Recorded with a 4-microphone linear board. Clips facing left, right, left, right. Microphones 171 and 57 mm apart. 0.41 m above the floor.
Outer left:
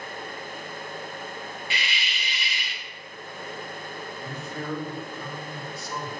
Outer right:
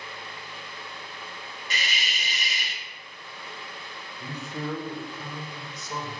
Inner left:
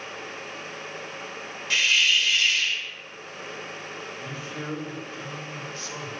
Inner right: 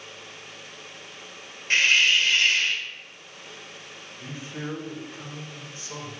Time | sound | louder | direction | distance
1.7 | a hiss | even, inner right 2 dB | 40° right (ahead or behind) | 0.6 m
4.2 | a man speaking | outer right 3 dB, inner right 3 dB | 20° right (ahead or behind) | 1.2 m